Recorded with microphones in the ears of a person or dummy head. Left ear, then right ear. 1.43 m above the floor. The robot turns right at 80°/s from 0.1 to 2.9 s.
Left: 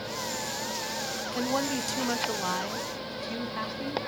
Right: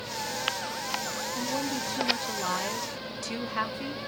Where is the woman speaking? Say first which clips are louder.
Left 4 dB; 85° left, 1.4 m; by 4.1 s 150° right, 1.4 m.